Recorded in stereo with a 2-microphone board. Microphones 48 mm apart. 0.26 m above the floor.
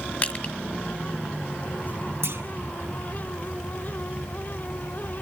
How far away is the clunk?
About 1.3 m.